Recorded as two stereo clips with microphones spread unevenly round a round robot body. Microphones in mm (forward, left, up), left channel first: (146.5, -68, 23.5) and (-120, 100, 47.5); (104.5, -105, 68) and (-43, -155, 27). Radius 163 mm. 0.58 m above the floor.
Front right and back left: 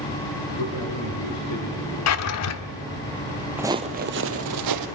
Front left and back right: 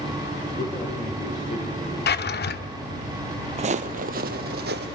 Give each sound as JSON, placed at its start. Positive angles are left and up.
{"t": 0.6, "sound": "a man speaking", "azimuth_deg": -25, "distance_m": 3.0}
{"t": 2.1, "sound": "a drawer", "azimuth_deg": 5, "distance_m": 1.0}
{"t": 3.6, "sound": "footsteps", "azimuth_deg": -145, "distance_m": 0.6}